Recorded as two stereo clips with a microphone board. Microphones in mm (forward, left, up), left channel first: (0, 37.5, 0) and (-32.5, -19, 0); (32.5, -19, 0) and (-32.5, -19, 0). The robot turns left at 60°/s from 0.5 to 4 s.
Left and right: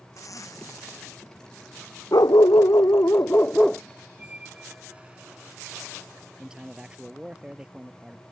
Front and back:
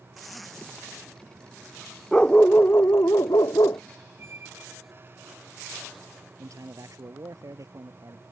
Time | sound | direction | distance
0.2 | a zipper | 90° left | ?
2.1 | a dog barking | 80° left | ?
4.2 | a squeak | 175° right | ?
6.4 | a man speaking | 165° left | ?